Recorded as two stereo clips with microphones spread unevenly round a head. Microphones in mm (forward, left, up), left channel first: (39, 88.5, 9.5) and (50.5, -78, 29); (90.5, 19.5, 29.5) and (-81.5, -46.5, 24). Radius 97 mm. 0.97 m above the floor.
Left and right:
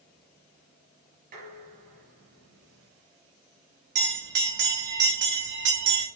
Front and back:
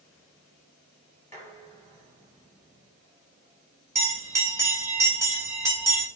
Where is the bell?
85° right, 3.5 m.